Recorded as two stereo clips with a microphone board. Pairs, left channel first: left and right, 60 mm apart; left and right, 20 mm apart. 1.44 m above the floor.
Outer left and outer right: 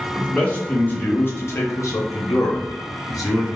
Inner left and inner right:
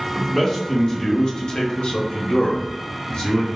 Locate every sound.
0.1 s a man speaking: 20° left (ahead or behind), 1.3 m; by 3.5 s 60° left (ahead or behind), 0.9 m